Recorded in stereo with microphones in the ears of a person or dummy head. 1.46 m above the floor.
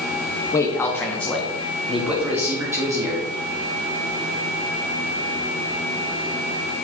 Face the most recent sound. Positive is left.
turn(degrees=-20)  # may be behind; listen again after turning